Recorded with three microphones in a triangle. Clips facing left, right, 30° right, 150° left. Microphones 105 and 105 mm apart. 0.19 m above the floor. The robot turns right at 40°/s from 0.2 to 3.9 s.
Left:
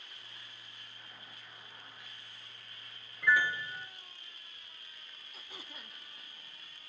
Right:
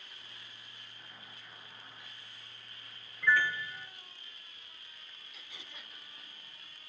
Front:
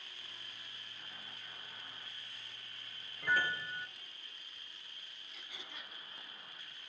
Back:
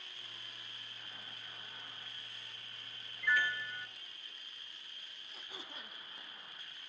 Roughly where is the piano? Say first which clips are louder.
Even, even; ahead.